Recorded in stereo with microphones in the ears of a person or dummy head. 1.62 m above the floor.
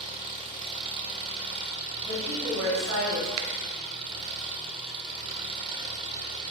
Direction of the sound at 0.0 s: 30° right (ahead or behind).